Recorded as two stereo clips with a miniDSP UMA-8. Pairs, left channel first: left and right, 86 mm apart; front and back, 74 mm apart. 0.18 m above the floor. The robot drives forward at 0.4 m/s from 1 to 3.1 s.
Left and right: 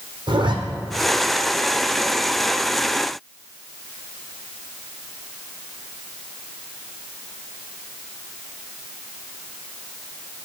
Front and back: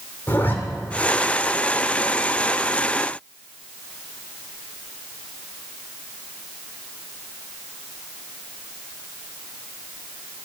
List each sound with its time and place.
0.3 s a zipper: 65° right, 1.3 m